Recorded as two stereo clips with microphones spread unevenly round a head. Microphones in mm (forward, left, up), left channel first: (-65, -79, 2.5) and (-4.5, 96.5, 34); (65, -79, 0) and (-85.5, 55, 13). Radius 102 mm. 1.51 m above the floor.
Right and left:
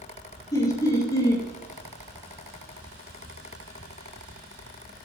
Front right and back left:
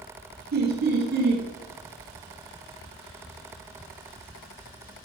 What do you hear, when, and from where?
0.5 s laughter: straight behind, 1.1 m